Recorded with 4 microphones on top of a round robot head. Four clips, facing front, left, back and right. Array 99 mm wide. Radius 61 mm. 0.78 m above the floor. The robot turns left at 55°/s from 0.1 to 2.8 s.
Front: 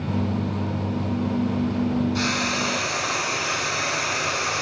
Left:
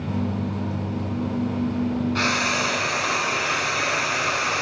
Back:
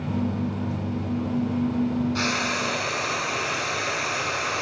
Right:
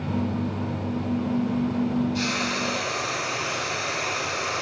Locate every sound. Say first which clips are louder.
2.1 s frying: left 4 dB, front 1 dB; 110° left, 9.5 m; by 4.6 s 75° left, 9.5 m